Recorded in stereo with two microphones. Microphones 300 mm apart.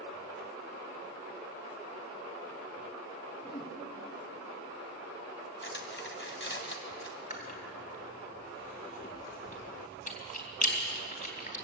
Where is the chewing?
25° left (ahead or behind), 3.5 m.